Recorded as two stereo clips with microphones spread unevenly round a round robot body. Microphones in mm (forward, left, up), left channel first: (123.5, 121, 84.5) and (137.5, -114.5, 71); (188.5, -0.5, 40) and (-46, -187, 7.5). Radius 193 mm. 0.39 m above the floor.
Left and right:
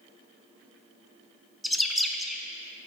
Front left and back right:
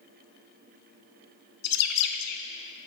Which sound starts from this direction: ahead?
A bird, at 1.6 s.